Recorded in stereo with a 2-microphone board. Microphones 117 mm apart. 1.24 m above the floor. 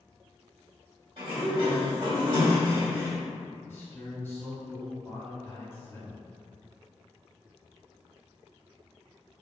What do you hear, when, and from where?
1.2 s a sliding door: 55° right (ahead or behind), 1.8 m
3.7 s a man speaking: 20° left (ahead or behind), 0.8 m